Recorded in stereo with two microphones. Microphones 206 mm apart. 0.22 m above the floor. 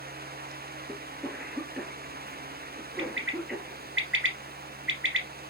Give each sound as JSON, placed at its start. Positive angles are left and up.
{"t": 0.9, "sound": "a cough", "side_deg": 0, "distance_m": 3.5}
{"t": 3.0, "sound": "a bird", "side_deg": -70, "distance_m": 3.0}